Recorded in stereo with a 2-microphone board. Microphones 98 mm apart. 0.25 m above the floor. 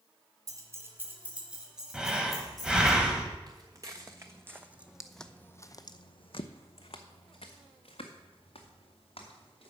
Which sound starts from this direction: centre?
Breathing, at 1.9 s.